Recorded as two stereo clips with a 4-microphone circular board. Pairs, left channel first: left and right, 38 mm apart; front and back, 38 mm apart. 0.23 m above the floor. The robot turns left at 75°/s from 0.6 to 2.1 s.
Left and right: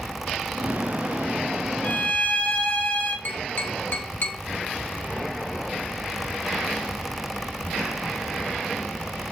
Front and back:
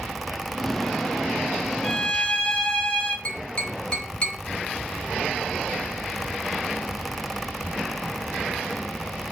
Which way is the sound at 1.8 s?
80° left.